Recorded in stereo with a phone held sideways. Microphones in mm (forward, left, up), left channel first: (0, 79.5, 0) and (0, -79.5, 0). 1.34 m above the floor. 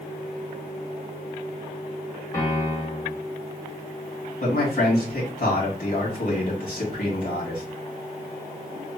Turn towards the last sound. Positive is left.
turn(degrees=60)  # may be behind; listen again after turning